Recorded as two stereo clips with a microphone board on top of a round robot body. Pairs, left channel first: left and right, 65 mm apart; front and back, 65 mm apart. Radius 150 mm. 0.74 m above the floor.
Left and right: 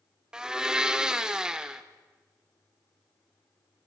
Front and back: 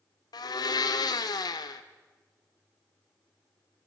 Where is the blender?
15° right, 0.7 m.